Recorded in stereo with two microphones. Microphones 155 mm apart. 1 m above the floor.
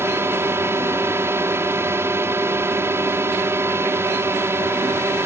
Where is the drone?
15° right (ahead or behind).